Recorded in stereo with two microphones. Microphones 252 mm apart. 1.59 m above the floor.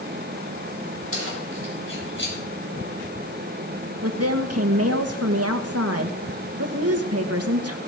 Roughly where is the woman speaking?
Right.